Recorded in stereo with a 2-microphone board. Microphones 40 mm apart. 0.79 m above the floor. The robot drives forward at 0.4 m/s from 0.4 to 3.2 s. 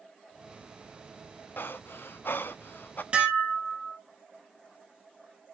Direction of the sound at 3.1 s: 30° right (ahead or behind).